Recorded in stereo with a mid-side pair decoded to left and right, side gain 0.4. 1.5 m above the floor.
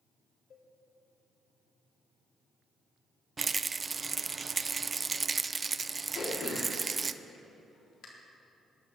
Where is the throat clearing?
65° left, 3.5 m.